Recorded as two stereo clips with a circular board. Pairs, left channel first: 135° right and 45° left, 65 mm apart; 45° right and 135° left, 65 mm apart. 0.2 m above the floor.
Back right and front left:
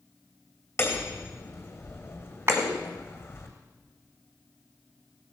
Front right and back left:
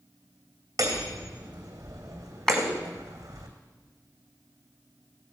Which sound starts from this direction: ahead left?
A clap, at 2.5 s.